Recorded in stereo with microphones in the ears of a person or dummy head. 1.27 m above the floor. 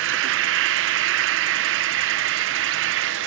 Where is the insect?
75° right (ahead or behind).